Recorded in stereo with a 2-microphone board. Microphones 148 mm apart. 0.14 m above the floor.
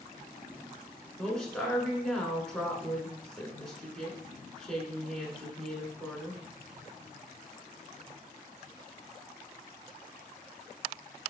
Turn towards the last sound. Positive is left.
turn(degrees=5)  # may be behind; listen again after turning